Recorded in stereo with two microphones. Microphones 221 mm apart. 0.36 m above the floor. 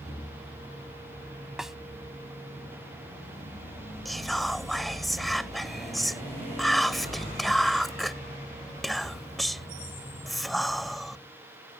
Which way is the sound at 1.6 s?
Centre (ahead or behind).